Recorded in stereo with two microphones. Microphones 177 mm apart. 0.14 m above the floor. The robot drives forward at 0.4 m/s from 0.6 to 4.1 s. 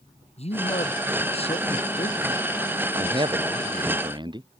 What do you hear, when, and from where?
0.4 s a man speaking: 40° left (ahead or behind); by 4.0 s 30° left (ahead or behind)
3.0 s a man speaking: 25° right (ahead or behind)